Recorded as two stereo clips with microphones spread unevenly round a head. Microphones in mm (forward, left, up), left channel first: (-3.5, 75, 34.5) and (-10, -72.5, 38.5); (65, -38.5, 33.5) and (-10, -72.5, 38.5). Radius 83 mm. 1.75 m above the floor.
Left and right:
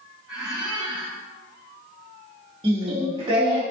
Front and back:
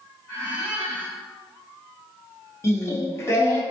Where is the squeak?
10° right, 1.8 m.